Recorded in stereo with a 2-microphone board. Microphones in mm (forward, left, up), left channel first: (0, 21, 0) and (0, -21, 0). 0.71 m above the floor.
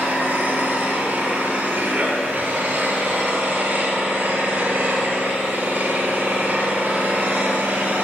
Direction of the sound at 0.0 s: 55° right (ahead or behind).